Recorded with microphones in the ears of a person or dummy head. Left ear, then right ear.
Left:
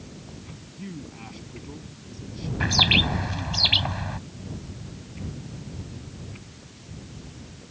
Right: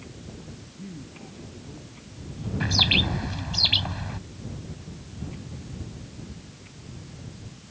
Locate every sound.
0.8 s a man speaking: 50° left (ahead or behind)
2.6 s a bird: 15° left (ahead or behind)